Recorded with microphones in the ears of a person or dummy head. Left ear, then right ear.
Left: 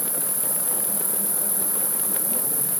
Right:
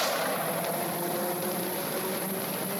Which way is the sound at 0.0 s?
80° left.